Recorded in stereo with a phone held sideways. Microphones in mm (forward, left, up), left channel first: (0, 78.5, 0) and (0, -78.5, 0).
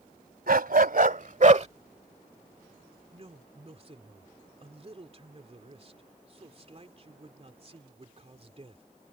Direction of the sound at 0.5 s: 75° right (ahead or behind).